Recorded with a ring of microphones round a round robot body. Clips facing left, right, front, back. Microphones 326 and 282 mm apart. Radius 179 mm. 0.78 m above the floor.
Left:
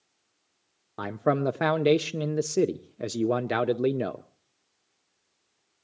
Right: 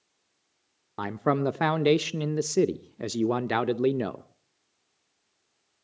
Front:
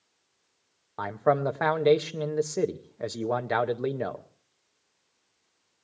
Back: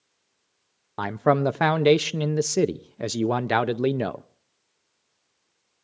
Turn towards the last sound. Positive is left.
turn(degrees=-165)